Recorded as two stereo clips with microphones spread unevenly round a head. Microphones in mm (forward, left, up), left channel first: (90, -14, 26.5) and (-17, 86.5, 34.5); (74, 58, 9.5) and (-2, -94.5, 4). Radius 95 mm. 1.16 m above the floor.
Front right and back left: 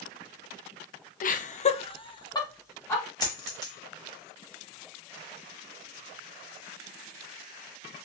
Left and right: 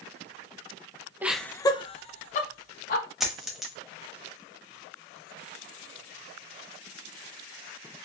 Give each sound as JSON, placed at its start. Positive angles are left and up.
{"t": 1.2, "sound": "laughter", "azimuth_deg": -40, "distance_m": 0.6}
{"t": 3.2, "sound": "a dropped coin", "azimuth_deg": -25, "distance_m": 1.0}